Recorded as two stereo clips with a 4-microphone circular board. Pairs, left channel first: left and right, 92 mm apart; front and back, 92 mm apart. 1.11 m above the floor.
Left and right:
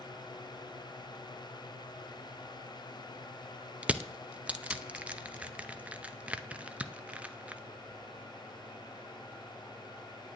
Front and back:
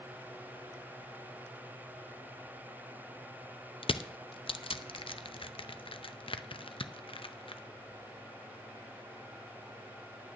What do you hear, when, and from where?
3.8 s crushing: 15° right, 0.6 m